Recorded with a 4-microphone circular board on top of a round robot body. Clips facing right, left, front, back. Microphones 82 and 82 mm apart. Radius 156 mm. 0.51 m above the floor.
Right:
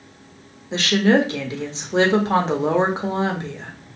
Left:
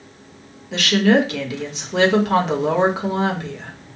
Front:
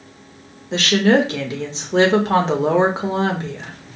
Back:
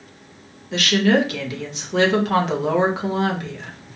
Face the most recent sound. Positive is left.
turn(degrees=-45)